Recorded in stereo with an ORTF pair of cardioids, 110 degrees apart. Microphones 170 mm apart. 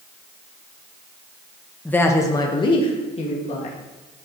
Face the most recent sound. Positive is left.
turn(degrees=45)